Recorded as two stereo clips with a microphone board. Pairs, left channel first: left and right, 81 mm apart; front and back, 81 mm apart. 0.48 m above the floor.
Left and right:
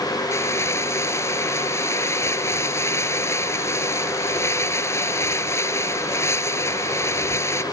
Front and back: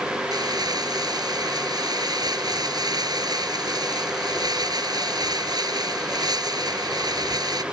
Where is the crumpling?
145° left.